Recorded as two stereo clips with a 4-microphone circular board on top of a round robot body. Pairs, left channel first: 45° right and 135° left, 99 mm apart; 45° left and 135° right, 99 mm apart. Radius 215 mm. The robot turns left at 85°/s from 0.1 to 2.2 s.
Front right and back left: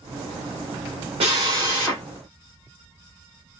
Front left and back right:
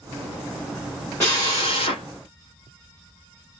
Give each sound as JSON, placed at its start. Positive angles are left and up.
{"t": 1.2, "sound": "a drill", "azimuth_deg": 110, "distance_m": 0.6}